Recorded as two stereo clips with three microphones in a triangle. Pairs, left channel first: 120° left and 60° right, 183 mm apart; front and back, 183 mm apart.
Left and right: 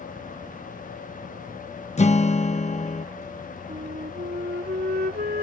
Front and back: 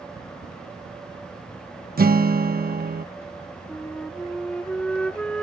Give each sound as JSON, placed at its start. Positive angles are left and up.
{"t": 2.0, "sound": "a guitar", "azimuth_deg": 165}
{"t": 3.7, "sound": "a flute", "azimuth_deg": -85}